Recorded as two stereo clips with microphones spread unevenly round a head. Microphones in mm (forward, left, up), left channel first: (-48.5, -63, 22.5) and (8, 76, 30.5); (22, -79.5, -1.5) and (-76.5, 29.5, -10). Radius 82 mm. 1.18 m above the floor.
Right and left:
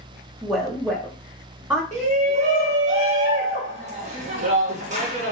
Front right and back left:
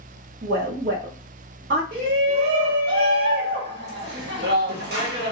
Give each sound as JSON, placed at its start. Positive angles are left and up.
{"t": 0.4, "sound": "a woman speaking", "azimuth_deg": 145, "distance_m": 1.3}
{"t": 1.9, "sound": "a shout", "azimuth_deg": 110, "distance_m": 1.5}